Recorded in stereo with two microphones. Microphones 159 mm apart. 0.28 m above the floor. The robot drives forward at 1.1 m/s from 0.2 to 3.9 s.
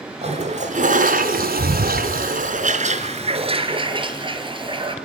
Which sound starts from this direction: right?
A toilet flushing, at 0.2 s.